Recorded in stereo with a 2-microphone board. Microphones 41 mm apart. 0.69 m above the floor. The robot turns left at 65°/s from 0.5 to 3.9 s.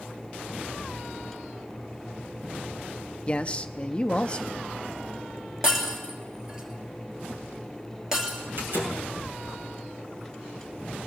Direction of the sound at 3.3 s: 30° left (ahead or behind).